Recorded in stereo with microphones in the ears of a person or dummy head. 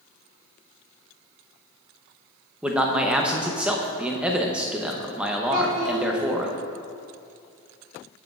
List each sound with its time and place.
2.6 s a man speaking: 5° right (ahead or behind), 0.8 m
5.5 s a child speaking: 70° right (ahead or behind), 3.5 m